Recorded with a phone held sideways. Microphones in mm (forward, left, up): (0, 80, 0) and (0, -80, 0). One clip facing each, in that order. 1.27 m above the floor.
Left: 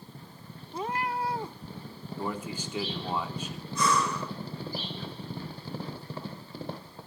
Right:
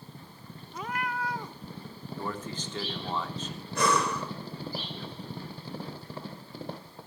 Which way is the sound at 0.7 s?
30° left (ahead or behind).